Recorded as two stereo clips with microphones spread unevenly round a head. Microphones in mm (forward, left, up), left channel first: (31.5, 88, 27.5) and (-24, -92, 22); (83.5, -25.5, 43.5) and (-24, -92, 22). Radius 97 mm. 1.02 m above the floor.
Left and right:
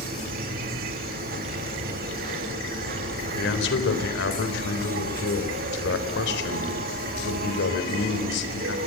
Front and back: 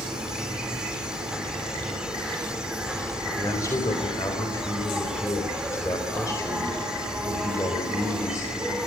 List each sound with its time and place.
0.0 s an insect: 65° right, 2 m
3.4 s a man speaking: 105° left, 3.5 m